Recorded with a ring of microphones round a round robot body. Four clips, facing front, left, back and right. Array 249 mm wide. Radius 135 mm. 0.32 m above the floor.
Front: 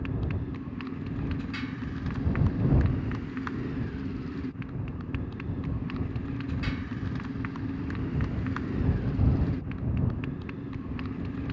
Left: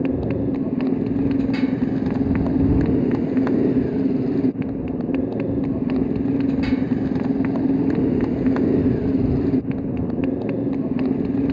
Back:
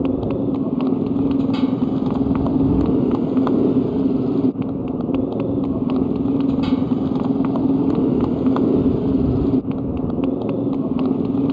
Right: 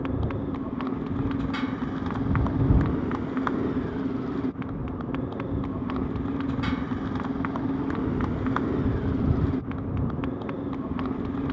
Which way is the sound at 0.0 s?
150° left.